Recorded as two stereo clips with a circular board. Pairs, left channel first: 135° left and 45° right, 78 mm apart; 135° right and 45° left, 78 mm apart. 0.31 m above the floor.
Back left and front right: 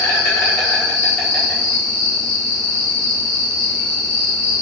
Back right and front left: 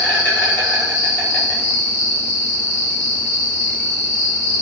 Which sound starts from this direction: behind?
An insect, at 0.0 s.